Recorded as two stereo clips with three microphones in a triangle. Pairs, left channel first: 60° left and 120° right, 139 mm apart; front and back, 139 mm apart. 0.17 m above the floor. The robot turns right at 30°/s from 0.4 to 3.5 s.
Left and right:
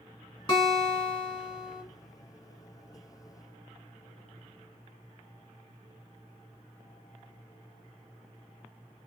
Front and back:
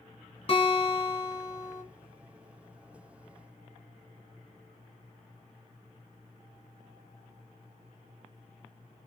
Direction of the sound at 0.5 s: 20° left.